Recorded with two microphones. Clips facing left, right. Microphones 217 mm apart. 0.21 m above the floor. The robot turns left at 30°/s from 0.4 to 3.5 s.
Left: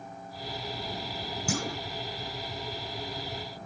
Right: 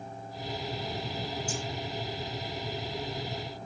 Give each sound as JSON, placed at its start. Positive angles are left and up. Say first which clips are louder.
{"t": 1.5, "sound": "a clunk", "louder": "left 4 dB", "side_deg": 75}